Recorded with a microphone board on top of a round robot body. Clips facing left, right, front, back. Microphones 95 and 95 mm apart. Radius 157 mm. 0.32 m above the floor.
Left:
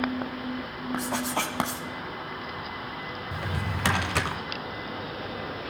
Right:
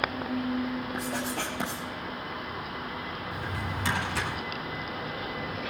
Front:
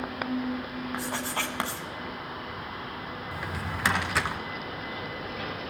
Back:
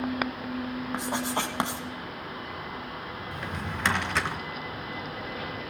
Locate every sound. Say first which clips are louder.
0.9 s writing: left 3 dB, back 3 dB; 110° left, 1.2 m
3.3 s a drawer: left 3 dB, even; 85° left, 1.2 m